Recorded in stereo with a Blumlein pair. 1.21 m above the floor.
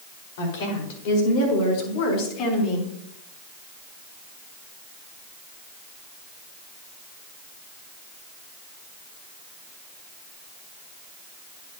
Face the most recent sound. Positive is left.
turn(degrees=35)